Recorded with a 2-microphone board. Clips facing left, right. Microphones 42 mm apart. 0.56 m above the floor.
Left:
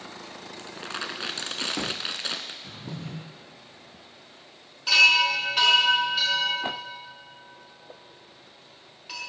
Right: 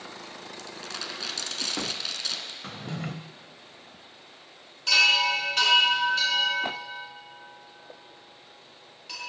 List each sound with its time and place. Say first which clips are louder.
0.6 s crumpling: left 5 dB; 30° left (ahead or behind), 0.9 m
2.6 s a drawer: right 3 dB; 85° right, 0.8 m
4.9 s a chime: left 3 dB; 10° left (ahead or behind), 5.5 m